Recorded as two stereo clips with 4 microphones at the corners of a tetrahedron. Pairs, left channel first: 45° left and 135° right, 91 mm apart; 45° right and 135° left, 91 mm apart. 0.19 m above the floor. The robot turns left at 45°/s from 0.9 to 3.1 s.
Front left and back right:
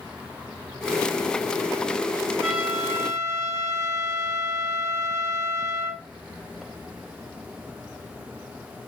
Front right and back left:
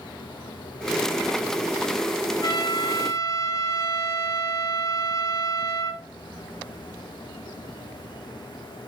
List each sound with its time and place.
2.4 s a trumpet: 55° right, 1.4 m; by 6.0 s 90° right, 1.4 m